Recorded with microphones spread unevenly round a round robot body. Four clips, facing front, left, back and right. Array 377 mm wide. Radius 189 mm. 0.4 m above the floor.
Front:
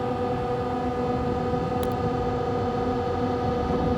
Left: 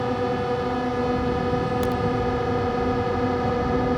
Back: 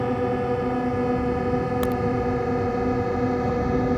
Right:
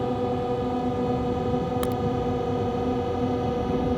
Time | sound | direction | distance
0.0 | a drone | 170° left | ?
1.8 | a crack | 165° right | ?